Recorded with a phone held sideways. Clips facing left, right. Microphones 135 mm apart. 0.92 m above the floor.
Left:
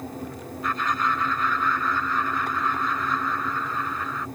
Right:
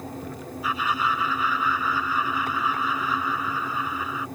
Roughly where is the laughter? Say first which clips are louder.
Even; centre.